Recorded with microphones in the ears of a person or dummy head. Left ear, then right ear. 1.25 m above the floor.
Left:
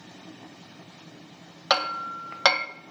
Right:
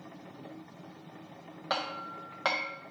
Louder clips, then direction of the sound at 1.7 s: Left 9 dB; 75° left (ahead or behind).